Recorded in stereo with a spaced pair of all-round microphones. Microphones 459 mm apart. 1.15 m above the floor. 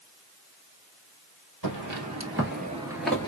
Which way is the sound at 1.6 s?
45° right (ahead or behind).